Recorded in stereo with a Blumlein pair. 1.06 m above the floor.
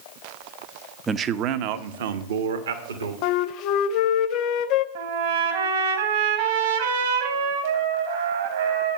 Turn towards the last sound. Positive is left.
turn(degrees=-55)